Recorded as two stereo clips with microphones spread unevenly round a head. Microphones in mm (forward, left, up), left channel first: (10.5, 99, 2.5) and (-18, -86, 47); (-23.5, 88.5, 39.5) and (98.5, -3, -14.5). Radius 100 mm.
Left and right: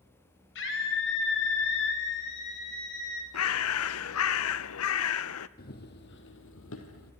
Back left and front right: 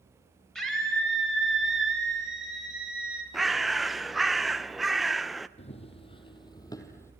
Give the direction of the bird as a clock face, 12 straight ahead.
10 o'clock.